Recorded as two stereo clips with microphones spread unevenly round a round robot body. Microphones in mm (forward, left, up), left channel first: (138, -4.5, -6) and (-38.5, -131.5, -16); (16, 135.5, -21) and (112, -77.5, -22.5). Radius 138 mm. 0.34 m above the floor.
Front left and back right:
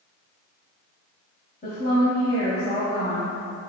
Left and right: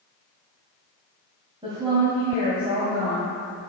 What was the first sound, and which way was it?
A woman speaking, straight ahead.